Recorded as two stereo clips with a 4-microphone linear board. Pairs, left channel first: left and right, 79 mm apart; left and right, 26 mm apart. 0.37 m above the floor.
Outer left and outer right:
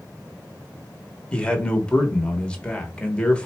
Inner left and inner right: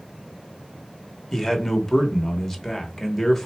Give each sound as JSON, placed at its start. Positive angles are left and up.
{"t": 1.3, "sound": "a man speaking", "side_deg": 15, "distance_m": 1.0}